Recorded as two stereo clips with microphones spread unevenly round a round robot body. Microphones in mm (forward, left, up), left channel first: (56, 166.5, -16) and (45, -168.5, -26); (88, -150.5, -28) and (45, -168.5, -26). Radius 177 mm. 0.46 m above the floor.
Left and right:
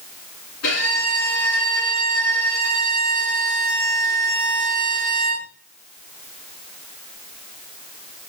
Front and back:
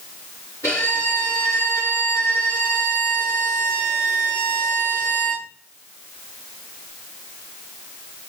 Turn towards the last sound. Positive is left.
turn(degrees=135)